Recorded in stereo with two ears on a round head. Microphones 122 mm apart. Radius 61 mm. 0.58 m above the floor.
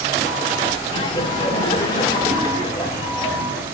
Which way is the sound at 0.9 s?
30° left (ahead or behind).